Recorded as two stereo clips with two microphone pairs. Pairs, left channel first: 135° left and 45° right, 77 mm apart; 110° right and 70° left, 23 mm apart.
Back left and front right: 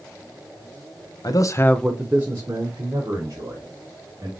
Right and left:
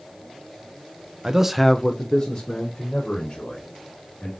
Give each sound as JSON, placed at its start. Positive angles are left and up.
{"t": 1.2, "sound": "a man speaking", "azimuth_deg": 120, "distance_m": 0.7}